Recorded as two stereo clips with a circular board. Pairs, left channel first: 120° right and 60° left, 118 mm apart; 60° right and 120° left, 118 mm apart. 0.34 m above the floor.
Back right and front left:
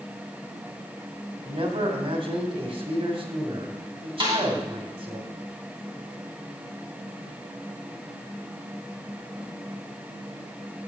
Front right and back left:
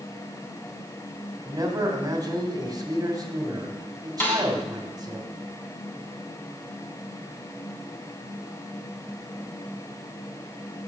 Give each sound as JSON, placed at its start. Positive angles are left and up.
{"t": 1.4, "sound": "a man speaking", "azimuth_deg": 75, "distance_m": 2.0}
{"t": 4.2, "sound": "a snare drum", "azimuth_deg": 10, "distance_m": 3.0}